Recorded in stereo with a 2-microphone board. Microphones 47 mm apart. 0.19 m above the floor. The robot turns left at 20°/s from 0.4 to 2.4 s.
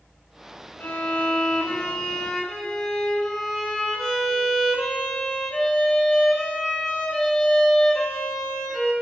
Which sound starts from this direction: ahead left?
A violin, at 0.8 s.